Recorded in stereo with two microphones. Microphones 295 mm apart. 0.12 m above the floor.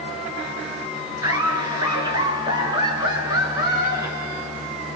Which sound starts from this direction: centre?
Laughter, at 1.2 s.